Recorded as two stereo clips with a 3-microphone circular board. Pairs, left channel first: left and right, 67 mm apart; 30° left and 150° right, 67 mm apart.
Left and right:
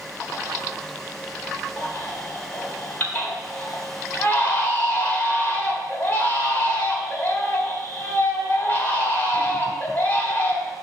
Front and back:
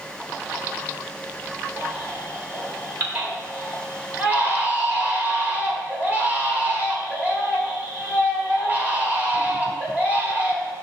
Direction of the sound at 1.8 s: 150° left.